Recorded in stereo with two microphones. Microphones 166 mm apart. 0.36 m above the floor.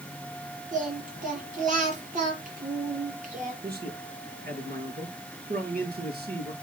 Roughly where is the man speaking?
Right.